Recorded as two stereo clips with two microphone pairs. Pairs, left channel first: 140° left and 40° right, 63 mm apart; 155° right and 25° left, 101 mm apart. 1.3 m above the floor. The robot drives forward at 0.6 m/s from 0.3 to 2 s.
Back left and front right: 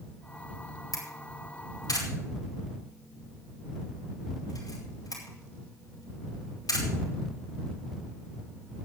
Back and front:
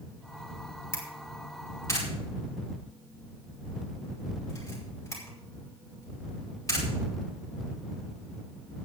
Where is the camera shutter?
140° left, 4.5 m; by 6.9 s 145° left, 5 m.